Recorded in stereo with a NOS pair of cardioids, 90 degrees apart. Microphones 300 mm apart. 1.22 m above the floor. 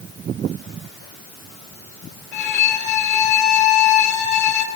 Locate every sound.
2.3 s a violin: 70° left, 1.7 m